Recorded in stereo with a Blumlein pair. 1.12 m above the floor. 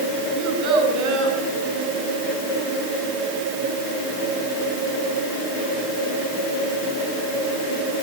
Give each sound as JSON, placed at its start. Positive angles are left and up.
{"t": 0.4, "sound": "a child speaking", "azimuth_deg": -30, "distance_m": 7.5}